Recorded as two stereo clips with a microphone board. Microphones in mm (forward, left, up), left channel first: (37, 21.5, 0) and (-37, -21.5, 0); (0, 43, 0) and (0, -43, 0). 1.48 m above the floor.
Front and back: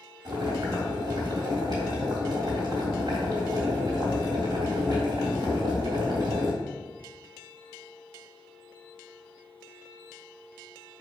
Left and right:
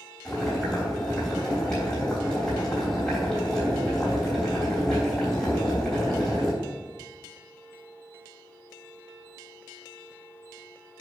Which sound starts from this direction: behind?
Boiling, at 0.2 s.